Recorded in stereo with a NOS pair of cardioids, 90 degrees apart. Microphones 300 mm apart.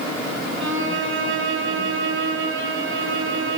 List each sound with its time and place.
0.6 s a violin: 40° right, 2.5 m